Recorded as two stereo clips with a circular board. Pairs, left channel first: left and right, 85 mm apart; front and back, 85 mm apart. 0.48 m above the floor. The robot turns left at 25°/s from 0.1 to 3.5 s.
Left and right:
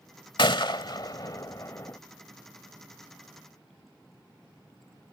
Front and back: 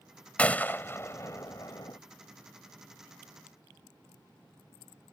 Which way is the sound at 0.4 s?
75° left.